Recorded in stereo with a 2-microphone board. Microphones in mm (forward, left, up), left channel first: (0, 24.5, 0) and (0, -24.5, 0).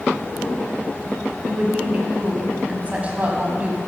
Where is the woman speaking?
30° right (ahead or behind), 1.1 m.